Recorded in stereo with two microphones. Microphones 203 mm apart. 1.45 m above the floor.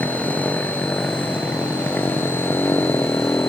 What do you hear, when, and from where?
0.0 s a motorcycle: 5° left (ahead or behind); by 3.5 s 10° left (ahead or behind)